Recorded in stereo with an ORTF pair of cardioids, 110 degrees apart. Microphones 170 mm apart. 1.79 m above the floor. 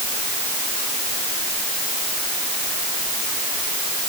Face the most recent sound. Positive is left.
No sound to turn to.